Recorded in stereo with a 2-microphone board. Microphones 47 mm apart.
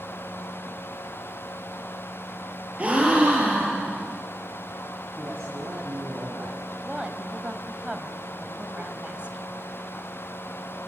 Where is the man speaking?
60° right (ahead or behind), 3.5 m.